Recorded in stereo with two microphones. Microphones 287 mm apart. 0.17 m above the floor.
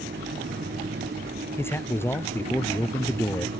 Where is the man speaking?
10° left (ahead or behind).